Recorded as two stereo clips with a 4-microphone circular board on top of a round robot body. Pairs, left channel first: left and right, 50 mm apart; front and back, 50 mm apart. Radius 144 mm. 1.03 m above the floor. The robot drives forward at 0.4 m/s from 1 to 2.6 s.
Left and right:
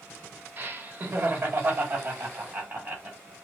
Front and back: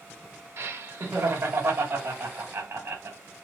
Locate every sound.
0.6 s laughter: 145° right, 1.5 m; by 3.2 s 155° right, 2 m